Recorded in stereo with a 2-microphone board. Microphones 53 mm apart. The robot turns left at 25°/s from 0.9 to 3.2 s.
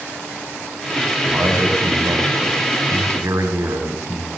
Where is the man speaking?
45° right, 6.5 m; by 4.3 s 90° right, 6.5 m.